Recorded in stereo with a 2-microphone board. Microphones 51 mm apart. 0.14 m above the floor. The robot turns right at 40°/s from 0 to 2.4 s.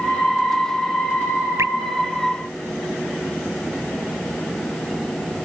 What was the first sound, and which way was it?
Dripping, 65° right (ahead or behind).